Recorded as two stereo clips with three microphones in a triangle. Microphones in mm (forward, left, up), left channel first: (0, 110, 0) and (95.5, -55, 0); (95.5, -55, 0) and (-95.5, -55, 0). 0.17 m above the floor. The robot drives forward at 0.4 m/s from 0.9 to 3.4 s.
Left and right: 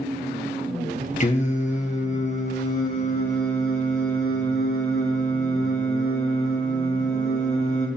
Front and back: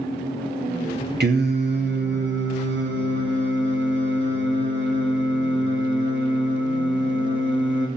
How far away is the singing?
About 1.5 m.